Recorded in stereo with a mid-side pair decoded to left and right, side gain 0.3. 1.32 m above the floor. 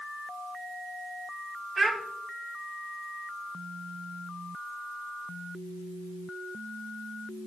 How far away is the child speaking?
About 1.9 m.